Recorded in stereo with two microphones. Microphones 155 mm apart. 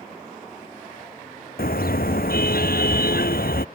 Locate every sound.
1.6 s a car horn: 75° left (ahead or behind)